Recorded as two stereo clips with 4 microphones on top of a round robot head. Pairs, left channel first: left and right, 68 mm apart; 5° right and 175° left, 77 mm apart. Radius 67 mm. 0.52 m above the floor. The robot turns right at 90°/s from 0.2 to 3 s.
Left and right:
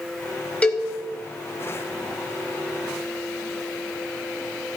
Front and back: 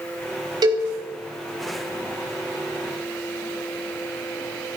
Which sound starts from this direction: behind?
A cowbell, at 0.6 s.